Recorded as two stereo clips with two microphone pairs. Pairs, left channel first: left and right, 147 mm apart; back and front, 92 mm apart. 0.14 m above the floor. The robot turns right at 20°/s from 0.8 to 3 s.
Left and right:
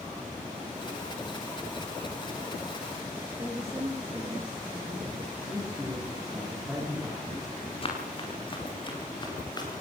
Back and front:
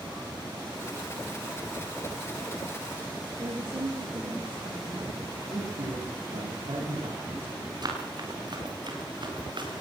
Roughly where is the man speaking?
Ahead.